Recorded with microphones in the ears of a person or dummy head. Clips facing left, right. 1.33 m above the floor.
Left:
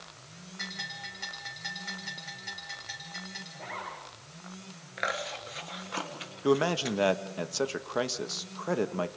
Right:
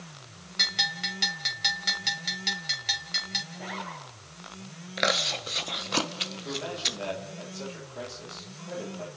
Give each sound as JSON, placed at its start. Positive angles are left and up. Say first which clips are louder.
{"t": 0.6, "sound": "a bell", "louder": "right 7 dB", "side_deg": -80, "distance_m": 3.0}
{"t": 3.5, "sound": "a zipper", "louder": "right 3 dB", "side_deg": 0, "distance_m": 9.5}
{"t": 5.0, "sound": "chewing", "louder": "right 6 dB", "side_deg": -55, "distance_m": 1.2}
{"t": 6.4, "sound": "a man speaking", "louder": "left 11 dB", "side_deg": 80, "distance_m": 1.5}